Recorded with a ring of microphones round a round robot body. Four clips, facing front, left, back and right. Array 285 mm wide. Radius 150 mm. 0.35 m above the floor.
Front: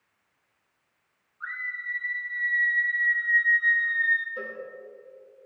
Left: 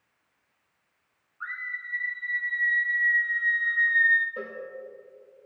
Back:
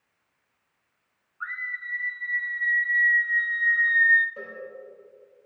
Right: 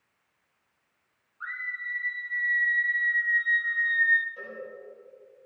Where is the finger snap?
I don't hear a finger snap.